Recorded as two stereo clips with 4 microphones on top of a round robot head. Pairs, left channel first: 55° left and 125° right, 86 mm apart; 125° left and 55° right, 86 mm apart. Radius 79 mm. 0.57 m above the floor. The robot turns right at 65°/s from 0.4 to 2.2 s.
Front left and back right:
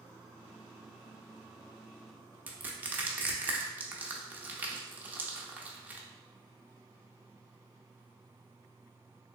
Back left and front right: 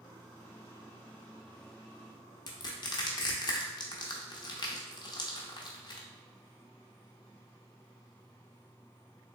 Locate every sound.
2.5 s crushing: 165° left, 0.7 m